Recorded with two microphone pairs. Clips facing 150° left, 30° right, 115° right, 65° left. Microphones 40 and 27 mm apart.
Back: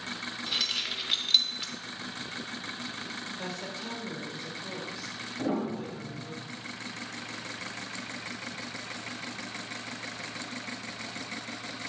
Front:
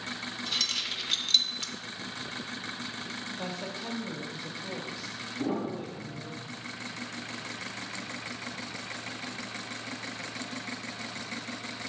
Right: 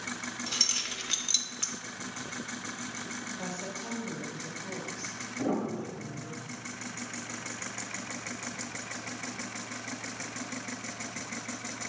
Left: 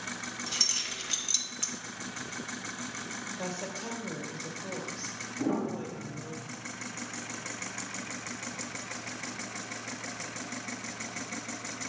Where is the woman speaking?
50° left, 1.2 m.